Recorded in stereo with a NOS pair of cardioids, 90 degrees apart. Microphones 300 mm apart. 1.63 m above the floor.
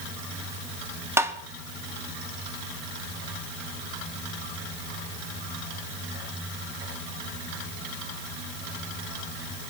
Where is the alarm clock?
I don't hear an alarm clock.